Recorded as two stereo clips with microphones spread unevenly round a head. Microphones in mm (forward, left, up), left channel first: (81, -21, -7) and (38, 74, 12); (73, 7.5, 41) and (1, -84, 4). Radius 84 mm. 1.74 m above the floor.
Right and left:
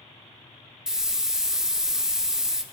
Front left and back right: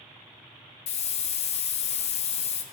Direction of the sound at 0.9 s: 30° left.